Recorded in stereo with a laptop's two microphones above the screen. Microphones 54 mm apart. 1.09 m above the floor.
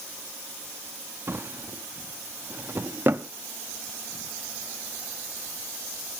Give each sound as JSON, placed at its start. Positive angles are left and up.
{"t": 1.3, "sound": "a drawer", "side_deg": -45, "distance_m": 0.6}